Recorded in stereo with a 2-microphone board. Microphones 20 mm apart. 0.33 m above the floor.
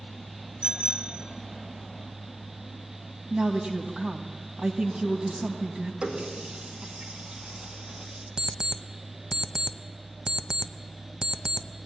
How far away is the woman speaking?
About 2 m.